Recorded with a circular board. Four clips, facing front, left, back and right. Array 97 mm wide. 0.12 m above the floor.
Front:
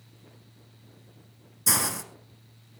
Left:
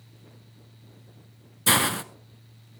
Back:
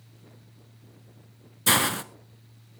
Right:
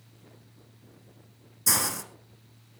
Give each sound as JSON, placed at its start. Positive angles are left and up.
{"t": 1.7, "sound": "a hiss", "azimuth_deg": 130, "distance_m": 1.1}